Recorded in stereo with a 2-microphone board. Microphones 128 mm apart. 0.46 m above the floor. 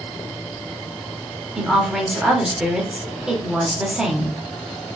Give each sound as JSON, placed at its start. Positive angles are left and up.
{"t": 1.6, "sound": "a woman speaking", "side_deg": -5, "distance_m": 1.0}